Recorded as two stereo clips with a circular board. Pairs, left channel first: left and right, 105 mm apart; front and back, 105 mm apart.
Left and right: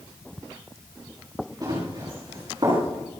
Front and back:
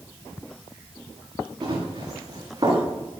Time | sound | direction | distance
1.6 | running footsteps | 135° right | 8 m